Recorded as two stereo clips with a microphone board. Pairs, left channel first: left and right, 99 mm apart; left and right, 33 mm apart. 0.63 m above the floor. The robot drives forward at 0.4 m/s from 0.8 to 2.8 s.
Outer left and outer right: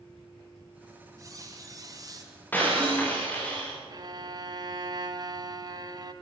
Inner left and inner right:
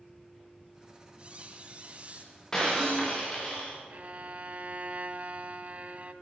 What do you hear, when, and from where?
1.2 s a squeak: 35° right (ahead or behind), 3.5 m; by 2.3 s 40° right (ahead or behind), 3 m
2.5 s breaking glass: 20° left (ahead or behind), 7 m
3.9 s a violin: 45° right (ahead or behind), 1.1 m